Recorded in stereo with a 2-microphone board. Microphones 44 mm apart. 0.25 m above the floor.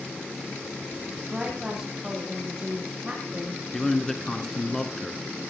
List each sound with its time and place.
1.2 s a woman speaking: 15° right (ahead or behind), 8.5 m
3.7 s a man speaking: 10° left (ahead or behind), 3 m